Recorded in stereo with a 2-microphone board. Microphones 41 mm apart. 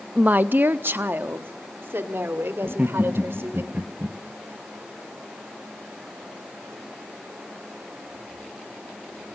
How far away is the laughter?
About 1.3 m.